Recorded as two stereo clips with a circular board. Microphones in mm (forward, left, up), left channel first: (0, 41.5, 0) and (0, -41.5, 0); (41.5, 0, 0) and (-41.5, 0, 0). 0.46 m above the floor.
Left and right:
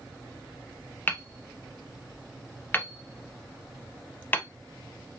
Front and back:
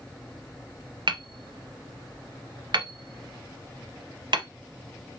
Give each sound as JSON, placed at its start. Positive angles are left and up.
{"t": 1.1, "sound": "hammering", "azimuth_deg": 155, "distance_m": 0.6}